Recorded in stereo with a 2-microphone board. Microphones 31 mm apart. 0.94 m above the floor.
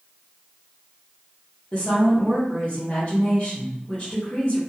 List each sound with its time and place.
1.7 s a woman speaking: 45° left (ahead or behind), 1.0 m